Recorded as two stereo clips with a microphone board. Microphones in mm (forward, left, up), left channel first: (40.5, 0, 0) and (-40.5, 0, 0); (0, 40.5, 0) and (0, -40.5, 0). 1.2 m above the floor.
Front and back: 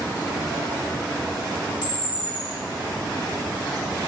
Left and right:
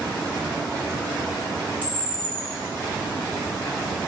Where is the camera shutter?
20° left, 2.5 m.